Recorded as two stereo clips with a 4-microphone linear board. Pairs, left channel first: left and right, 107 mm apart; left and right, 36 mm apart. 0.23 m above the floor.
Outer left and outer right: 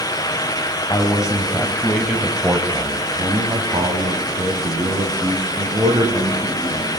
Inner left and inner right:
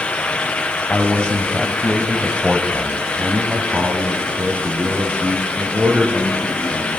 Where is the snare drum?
No snare drum in this recording.